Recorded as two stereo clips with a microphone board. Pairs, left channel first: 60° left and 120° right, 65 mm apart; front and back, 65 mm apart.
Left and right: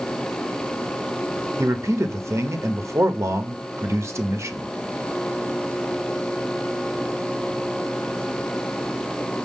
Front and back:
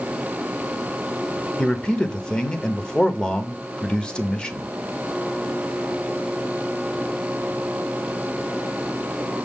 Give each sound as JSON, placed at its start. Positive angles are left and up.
{"t": 1.6, "sound": "a man speaking", "azimuth_deg": -80, "distance_m": 0.7}